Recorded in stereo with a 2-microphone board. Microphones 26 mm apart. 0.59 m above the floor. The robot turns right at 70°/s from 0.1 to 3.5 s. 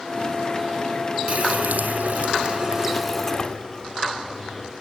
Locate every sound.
1.3 s a running tap: 130° right, 2.0 m; by 4.7 s 30° left, 2.0 m